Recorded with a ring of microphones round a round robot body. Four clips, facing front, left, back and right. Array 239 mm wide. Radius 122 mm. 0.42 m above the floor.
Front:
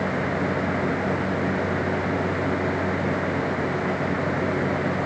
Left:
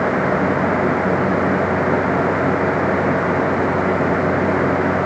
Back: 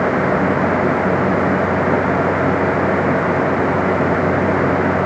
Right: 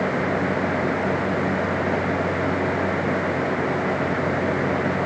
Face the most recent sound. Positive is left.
No sound to turn to.